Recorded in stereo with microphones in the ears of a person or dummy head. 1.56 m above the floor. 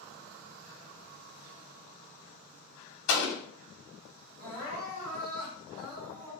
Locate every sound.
3.1 s an explosion: 70° left (ahead or behind), 0.9 m
4.4 s crying: 60° right (ahead or behind), 1.8 m